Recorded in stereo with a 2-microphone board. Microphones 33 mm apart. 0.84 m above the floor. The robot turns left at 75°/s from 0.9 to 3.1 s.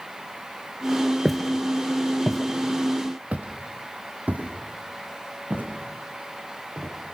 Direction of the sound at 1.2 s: Centre (ahead or behind).